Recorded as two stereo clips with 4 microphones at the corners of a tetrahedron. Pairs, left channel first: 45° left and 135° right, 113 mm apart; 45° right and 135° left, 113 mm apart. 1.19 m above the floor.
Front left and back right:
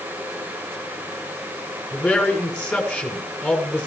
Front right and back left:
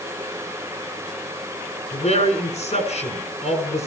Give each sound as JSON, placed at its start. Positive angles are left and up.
{"t": 1.9, "sound": "a man speaking", "azimuth_deg": -40, "distance_m": 7.5}